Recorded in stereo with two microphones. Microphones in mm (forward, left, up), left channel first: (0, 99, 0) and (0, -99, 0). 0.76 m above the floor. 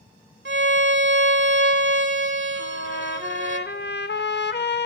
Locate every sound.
0.5 s a violin: 70° right (ahead or behind), 0.9 m
2.6 s a trumpet: 60° left (ahead or behind), 0.7 m